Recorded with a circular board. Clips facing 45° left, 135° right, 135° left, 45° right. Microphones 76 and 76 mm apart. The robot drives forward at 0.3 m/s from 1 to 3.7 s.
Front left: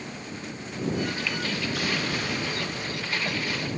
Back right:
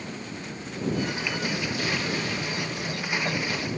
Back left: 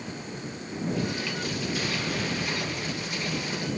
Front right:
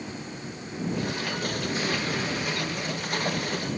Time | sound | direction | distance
1.7 | an explosion | 15° left | 9.5 m